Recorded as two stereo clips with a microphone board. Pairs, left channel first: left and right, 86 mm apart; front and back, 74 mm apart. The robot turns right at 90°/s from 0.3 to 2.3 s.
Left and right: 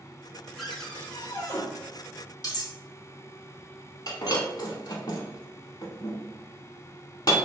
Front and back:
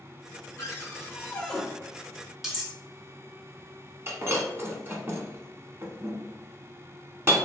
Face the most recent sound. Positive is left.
turn(degrees=125)